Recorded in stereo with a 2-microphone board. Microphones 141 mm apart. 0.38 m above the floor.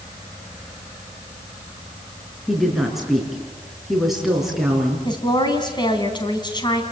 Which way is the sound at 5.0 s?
30° left (ahead or behind).